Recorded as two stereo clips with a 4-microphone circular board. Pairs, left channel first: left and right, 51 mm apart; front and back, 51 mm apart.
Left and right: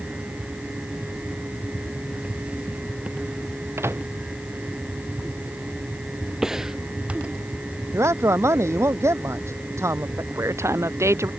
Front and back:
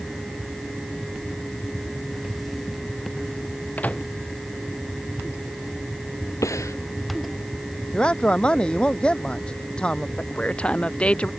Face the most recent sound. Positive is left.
turn(degrees=-65)